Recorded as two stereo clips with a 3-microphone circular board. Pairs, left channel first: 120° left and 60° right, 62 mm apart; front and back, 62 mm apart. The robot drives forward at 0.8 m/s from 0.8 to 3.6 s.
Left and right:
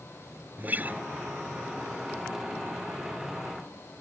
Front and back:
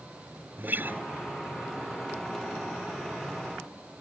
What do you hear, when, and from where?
0.6 s a guitar: 120° right